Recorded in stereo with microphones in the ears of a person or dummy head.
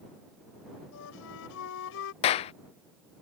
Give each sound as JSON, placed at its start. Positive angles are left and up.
{"t": 0.9, "sound": "a flute", "side_deg": 75}
{"t": 2.2, "sound": "a clap", "side_deg": 35}